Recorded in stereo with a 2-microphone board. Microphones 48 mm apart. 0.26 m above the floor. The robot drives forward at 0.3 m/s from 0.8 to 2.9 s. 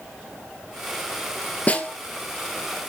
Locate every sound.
1.7 s a snare drum: 30° left (ahead or behind), 2.5 m